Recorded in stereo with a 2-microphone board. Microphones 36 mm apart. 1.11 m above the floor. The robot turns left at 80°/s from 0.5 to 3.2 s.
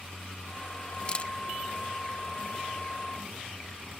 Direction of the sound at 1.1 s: 25° left (ahead or behind).